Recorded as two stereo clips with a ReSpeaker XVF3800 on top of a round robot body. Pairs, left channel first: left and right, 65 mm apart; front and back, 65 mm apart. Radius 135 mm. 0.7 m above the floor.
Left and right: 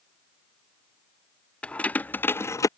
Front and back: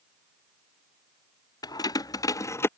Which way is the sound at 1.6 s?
20° left.